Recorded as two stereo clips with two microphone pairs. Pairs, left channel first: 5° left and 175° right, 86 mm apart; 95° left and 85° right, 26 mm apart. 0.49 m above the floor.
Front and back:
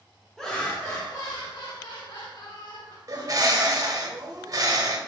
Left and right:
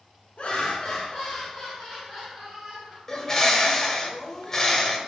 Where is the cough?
I don't hear a cough.